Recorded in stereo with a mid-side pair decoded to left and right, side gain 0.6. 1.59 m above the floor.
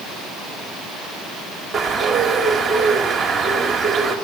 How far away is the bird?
About 2.5 m.